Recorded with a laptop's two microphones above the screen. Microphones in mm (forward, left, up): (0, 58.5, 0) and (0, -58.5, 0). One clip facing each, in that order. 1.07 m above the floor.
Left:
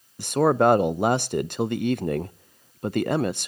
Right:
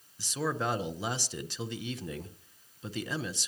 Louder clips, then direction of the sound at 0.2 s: Left 14 dB; 60° left (ahead or behind).